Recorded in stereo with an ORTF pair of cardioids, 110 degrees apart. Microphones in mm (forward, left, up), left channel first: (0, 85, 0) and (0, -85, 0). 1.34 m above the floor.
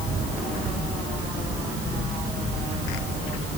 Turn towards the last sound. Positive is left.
No sound to turn to.